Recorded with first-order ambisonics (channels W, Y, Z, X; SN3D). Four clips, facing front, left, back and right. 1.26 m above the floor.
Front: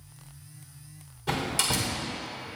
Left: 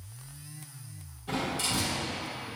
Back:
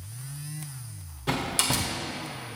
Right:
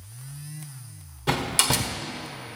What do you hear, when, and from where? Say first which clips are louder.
1.3 s a door slam: right 7 dB, back 1 dB; 110° right, 1.6 m